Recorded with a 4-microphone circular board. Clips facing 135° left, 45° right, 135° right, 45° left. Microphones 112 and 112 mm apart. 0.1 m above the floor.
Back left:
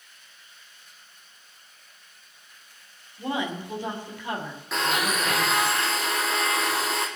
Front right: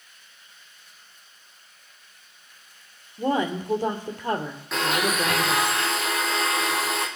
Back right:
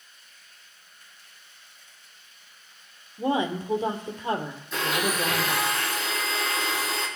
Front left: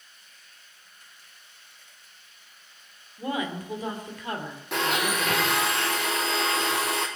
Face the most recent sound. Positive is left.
turn(degrees=45)